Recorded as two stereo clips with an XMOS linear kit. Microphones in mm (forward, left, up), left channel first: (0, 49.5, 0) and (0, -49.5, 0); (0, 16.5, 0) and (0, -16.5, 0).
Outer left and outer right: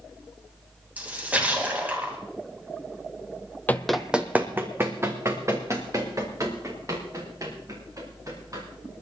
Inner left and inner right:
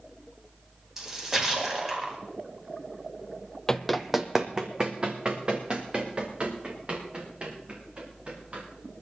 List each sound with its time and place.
1.0 s a splash: 15° right (ahead or behind), 2.5 m
3.7 s running footsteps: 20° left (ahead or behind), 0.6 m; by 8.6 s 35° right (ahead or behind), 6 m